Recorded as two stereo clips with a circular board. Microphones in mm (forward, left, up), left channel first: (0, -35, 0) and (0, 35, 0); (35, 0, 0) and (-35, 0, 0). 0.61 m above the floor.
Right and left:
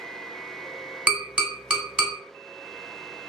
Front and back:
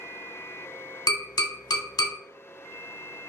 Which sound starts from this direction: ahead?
Tapping, at 1.1 s.